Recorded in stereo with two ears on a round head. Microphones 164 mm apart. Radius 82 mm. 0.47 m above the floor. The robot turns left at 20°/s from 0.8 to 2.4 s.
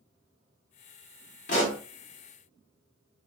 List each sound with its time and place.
1.5 s a pop: 45° left (ahead or behind), 0.8 m; by 1.8 s 40° left (ahead or behind), 0.8 m